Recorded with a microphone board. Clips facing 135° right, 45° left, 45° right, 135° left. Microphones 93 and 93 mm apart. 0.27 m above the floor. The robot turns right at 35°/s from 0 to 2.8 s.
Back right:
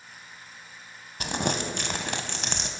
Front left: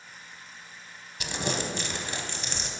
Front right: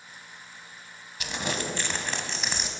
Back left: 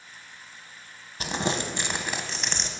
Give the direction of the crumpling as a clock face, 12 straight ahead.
6 o'clock.